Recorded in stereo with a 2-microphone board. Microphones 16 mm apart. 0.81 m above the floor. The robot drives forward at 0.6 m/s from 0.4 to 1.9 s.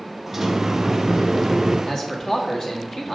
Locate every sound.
0.3 s a sliding door: 20° right (ahead or behind), 0.9 m; by 1.8 s 10° right (ahead or behind), 1.7 m
1.9 s a man speaking: 35° left (ahead or behind), 1.8 m